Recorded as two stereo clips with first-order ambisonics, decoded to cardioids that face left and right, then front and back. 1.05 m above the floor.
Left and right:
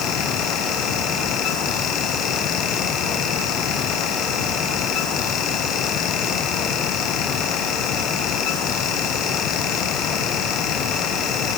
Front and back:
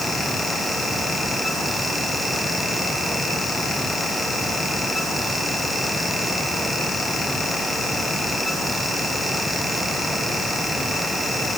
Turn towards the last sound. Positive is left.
No sound to turn to.